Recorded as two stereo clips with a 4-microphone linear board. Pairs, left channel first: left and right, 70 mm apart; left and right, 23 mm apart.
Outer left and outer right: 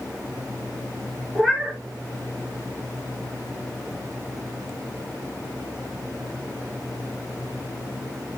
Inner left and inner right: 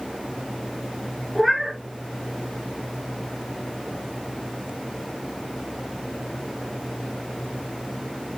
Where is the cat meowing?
10° left (ahead or behind), 2 m.